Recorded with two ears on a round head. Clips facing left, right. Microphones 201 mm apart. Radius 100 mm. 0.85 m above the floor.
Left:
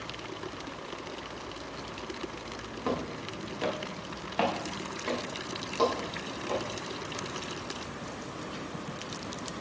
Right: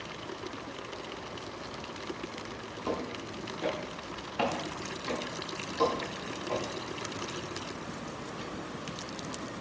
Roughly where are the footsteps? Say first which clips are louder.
Left 2 dB; left.